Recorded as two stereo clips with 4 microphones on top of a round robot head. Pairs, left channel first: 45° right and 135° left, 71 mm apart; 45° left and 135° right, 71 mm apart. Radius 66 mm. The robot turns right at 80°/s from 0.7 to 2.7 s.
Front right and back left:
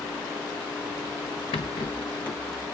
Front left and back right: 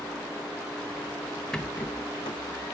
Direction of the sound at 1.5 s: 35° right.